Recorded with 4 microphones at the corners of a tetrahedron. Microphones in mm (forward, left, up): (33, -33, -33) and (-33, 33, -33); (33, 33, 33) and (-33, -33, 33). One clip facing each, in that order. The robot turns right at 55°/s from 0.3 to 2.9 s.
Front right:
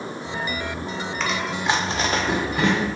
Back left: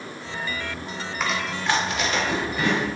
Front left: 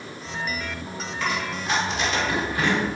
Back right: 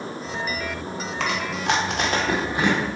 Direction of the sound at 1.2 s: 145° right.